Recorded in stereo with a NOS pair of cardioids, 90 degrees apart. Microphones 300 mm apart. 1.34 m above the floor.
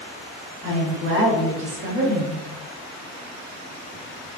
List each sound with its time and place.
0.6 s a woman speaking: 45° right, 1.4 m